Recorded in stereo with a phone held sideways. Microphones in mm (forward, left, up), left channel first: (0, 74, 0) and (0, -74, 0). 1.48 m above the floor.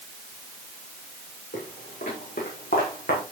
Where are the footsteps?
80° left, 6.5 m; by 3.2 s 70° left (ahead or behind), 5 m.